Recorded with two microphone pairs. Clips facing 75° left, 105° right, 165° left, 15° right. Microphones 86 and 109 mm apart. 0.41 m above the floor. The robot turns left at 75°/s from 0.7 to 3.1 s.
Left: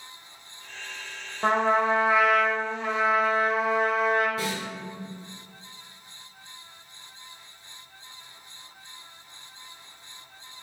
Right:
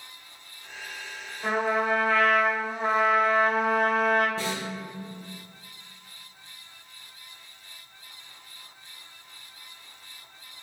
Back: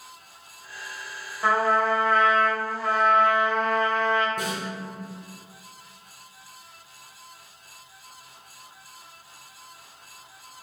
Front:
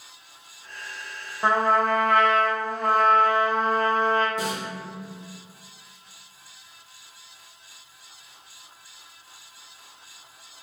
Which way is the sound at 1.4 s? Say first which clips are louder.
Left 3 dB, front 1 dB; 55° left.